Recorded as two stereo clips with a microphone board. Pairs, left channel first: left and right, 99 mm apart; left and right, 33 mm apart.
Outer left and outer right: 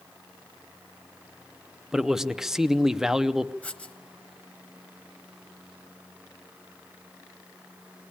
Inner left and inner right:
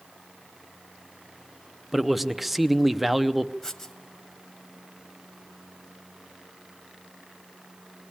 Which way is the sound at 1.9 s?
5° right (ahead or behind).